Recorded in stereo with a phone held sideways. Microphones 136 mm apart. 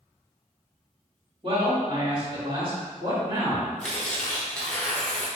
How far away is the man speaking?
About 1.8 m.